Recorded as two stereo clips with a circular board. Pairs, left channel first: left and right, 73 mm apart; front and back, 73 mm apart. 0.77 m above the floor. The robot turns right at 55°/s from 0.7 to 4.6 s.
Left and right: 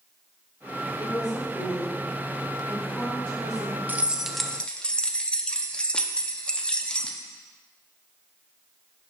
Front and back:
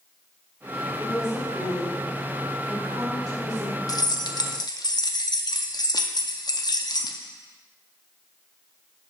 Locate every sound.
1.0 s a woman speaking: 85° left, 2.5 m; by 3.8 s 125° right, 2.5 m
3.9 s keys jangling: 25° right, 0.6 m; by 7.2 s 15° left, 0.6 m